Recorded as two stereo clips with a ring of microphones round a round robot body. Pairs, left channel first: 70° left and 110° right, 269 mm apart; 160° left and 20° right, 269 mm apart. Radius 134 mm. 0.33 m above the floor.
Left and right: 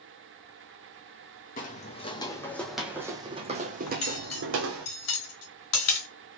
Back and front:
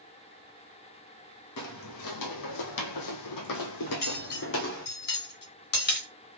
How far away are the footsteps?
About 1.3 m.